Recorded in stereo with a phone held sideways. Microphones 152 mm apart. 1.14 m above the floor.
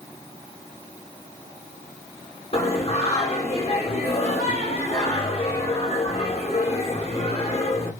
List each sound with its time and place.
2.5 s singing: 40° left (ahead or behind), 1.1 m